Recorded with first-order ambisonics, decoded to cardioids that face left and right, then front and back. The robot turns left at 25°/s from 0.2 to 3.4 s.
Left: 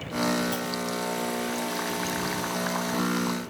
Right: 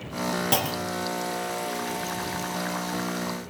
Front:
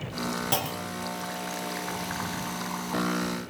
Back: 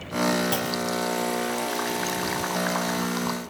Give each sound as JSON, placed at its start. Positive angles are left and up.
{"t": 0.5, "sound": "a clunk", "azimuth_deg": -80}